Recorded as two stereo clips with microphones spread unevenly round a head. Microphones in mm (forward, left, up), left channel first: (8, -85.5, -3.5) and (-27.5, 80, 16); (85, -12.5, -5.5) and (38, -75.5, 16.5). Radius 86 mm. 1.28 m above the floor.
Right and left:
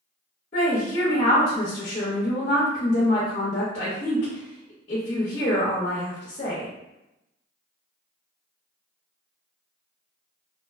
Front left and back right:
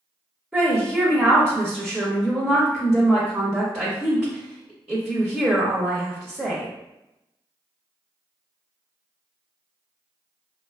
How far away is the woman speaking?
About 0.7 m.